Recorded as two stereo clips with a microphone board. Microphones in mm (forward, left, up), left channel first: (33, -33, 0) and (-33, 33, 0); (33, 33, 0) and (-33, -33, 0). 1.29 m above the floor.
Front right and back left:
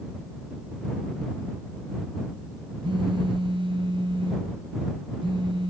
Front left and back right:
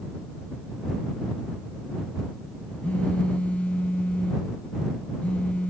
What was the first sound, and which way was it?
A phone buzzing, 120° left.